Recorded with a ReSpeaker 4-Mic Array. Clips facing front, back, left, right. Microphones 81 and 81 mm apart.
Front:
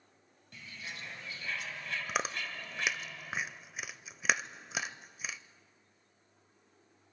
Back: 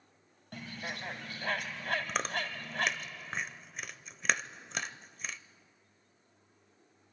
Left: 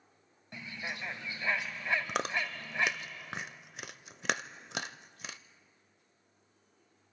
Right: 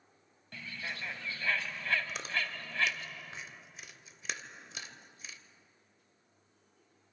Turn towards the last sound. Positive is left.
turn(degrees=85)